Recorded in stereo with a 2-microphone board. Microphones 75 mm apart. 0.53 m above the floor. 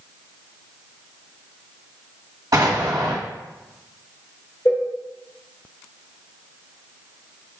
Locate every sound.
2.5 s an explosion: 55° right (ahead or behind), 1.5 m
4.7 s a cowbell: 35° left (ahead or behind), 0.7 m